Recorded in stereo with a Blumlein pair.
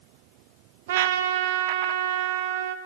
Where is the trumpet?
55° right, 0.6 m.